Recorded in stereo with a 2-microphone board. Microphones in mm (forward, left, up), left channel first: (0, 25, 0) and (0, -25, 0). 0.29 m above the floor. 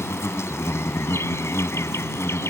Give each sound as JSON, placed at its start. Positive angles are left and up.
{"t": 0.0, "sound": "an insect", "side_deg": 60}